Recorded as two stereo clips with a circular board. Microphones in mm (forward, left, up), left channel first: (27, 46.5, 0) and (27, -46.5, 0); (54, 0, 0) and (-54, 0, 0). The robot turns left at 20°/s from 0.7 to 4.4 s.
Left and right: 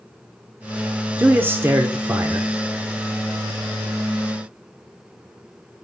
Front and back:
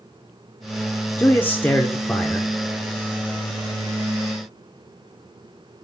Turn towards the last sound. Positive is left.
turn(degrees=-110)